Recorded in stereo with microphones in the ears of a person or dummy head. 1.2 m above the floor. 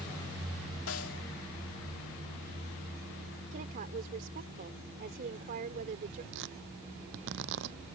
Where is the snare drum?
70° left (ahead or behind).